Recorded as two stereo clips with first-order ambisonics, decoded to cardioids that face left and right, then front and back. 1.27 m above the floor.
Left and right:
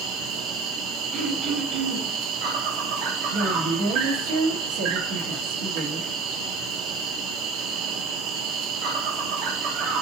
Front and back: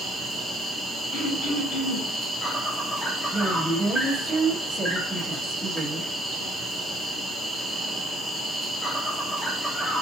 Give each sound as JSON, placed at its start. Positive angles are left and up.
{"t": 0.0, "sound": "an insect", "azimuth_deg": -75, "distance_m": 1.0}
{"t": 1.1, "sound": "throat clearing", "azimuth_deg": -5, "distance_m": 3.0}
{"t": 3.3, "sound": "a woman speaking", "azimuth_deg": -90, "distance_m": 1.4}